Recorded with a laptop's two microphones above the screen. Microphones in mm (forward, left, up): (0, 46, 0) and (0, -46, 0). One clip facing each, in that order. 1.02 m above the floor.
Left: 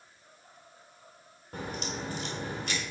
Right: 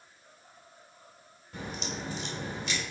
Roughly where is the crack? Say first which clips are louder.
Left 1 dB; left.